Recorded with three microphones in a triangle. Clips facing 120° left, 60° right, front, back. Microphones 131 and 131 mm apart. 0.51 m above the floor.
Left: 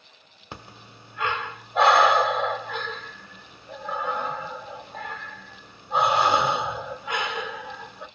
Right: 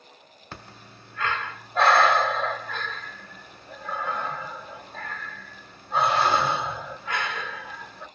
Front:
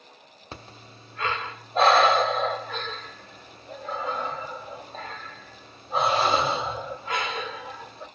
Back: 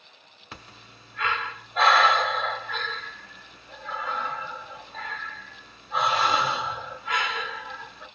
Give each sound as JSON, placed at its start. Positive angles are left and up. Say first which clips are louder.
{"t": 0.5, "sound": "breathing", "louder": "left 2 dB, front 3 dB", "azimuth_deg": 50, "distance_m": 1.0}